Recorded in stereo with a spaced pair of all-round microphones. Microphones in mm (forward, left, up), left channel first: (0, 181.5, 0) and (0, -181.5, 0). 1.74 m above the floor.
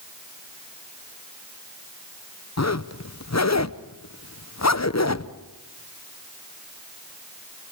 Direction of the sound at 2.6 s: 45° left (ahead or behind).